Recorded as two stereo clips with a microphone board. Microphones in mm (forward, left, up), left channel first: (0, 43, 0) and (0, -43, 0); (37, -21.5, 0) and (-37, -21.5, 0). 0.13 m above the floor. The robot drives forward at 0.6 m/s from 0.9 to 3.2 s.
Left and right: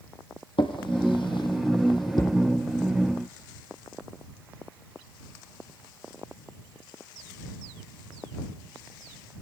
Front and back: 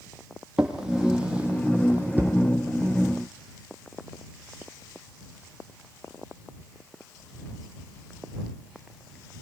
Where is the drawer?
100° left, 2.5 m; by 2.4 s 120° left, 3 m.